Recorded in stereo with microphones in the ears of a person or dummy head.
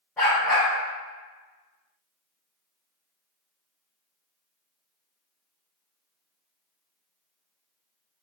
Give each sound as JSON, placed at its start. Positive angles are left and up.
{"t": 0.2, "sound": "a dog barking", "side_deg": 0, "distance_m": 1.3}